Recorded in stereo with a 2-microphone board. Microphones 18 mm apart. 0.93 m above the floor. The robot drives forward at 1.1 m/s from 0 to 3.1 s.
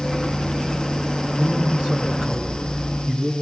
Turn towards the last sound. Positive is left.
turn(degrees=-50)  # may be behind; listen again after turning